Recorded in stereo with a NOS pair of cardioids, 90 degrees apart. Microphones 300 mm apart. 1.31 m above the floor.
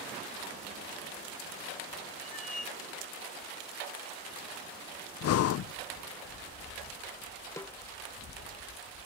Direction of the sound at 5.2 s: 55° left.